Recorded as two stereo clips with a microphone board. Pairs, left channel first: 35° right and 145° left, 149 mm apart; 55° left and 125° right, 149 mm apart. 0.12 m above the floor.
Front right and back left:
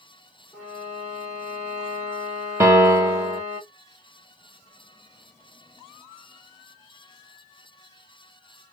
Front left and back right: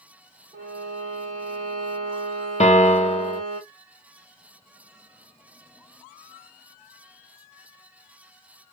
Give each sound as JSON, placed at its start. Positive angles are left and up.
{"t": 0.5, "sound": "a violin", "azimuth_deg": -105, "distance_m": 3.0}
{"t": 2.6, "sound": "a piano", "azimuth_deg": 80, "distance_m": 1.6}